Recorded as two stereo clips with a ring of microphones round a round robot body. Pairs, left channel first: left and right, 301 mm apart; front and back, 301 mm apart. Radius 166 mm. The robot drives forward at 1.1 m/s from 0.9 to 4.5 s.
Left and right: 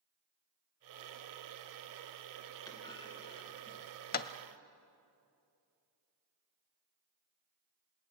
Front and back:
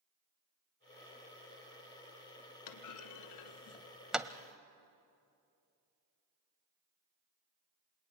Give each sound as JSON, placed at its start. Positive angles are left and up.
{"t": 2.7, "sound": "a clunk", "azimuth_deg": 10, "distance_m": 1.7}